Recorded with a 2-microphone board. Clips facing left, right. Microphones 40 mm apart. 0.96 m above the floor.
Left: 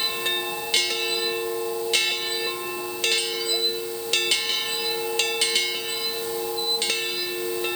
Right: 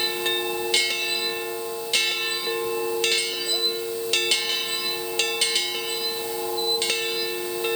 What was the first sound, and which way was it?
Only background noise.